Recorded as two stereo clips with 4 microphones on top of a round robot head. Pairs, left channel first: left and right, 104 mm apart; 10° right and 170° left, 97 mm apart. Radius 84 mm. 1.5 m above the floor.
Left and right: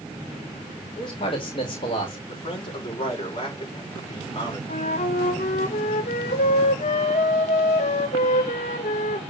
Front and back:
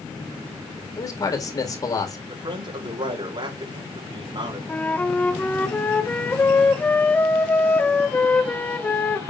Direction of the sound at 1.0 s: 40° left.